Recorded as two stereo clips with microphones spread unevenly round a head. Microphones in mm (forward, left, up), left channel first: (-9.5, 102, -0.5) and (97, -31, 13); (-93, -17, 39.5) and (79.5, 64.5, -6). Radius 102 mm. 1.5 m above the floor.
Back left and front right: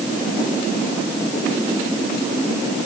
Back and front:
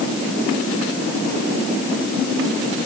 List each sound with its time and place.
Only background noise.